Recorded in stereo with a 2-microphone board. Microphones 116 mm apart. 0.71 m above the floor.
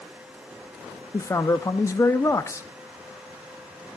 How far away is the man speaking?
About 0.5 m.